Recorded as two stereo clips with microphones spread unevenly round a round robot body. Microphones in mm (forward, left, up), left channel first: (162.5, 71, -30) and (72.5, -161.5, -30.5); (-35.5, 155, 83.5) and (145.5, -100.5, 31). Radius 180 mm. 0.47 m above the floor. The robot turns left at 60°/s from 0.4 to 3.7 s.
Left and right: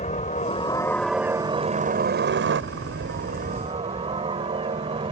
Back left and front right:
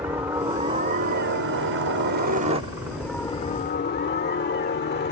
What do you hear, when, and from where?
0.0 s a helicopter: 20° left; by 5.1 s straight behind